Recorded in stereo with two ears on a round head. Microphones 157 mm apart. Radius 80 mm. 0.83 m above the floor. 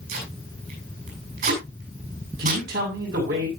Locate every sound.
0.1 s tape being pulled: 50° right (ahead or behind), 8.5 m
2.4 s a man speaking: 55° right (ahead or behind), 7 m